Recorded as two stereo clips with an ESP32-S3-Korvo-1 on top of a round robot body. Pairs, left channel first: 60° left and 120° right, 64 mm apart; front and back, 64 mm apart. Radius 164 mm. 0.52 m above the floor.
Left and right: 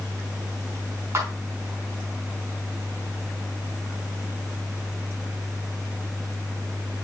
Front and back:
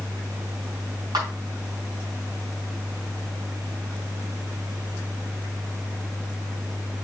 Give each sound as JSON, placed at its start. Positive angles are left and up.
{"t": 1.1, "sound": "a clap", "azimuth_deg": -175, "distance_m": 4.5}